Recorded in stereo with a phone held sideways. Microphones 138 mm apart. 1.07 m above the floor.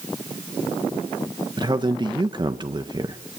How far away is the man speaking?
About 1.2 m.